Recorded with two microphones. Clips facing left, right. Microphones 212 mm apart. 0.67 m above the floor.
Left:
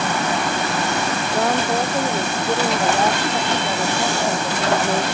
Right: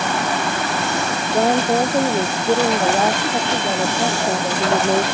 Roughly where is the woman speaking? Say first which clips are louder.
Right 5 dB; right.